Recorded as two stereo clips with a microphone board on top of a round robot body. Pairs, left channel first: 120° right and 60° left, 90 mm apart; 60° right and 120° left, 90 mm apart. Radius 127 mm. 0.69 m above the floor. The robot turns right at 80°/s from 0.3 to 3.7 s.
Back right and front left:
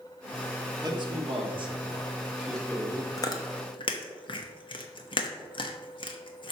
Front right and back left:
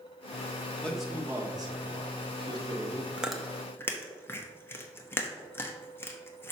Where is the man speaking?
15° left, 1.8 m; by 3.1 s 165° right, 1.8 m.